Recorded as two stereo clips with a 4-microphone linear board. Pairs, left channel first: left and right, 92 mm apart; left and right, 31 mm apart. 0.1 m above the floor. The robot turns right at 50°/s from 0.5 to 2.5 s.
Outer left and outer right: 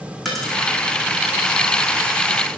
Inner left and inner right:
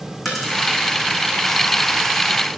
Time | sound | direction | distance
0.2 | a dropped coin | centre (ahead or behind) | 1.9 m